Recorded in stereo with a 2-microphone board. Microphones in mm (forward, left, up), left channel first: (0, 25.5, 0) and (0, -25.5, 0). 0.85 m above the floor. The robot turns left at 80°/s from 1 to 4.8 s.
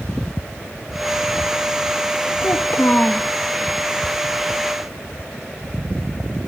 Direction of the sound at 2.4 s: 80° left.